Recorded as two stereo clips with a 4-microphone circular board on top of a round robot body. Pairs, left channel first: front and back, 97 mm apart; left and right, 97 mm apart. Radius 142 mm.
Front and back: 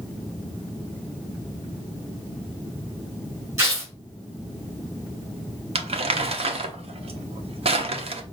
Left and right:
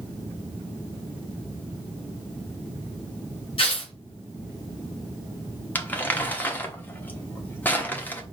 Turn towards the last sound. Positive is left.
turn(degrees=160)